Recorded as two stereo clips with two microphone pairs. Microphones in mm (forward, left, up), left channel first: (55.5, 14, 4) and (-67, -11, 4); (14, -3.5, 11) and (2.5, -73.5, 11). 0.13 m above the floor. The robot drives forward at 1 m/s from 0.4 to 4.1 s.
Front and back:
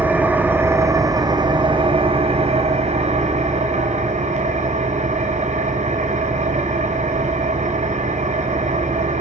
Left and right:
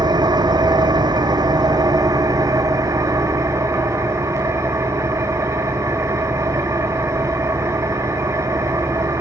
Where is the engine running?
90° right, 2.5 m; by 9.2 s 145° right, 4.5 m.